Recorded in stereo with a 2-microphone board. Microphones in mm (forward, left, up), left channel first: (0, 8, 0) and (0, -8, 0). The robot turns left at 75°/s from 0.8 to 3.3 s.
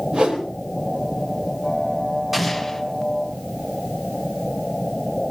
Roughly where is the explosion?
Behind.